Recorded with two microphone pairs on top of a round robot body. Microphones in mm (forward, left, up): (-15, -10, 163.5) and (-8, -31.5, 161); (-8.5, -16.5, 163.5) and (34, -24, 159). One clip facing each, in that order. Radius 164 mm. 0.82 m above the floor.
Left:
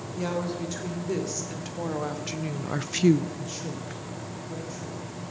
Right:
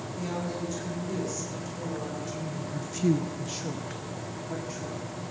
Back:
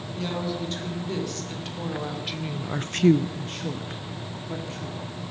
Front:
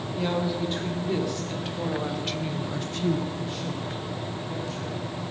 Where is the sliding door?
I don't hear a sliding door.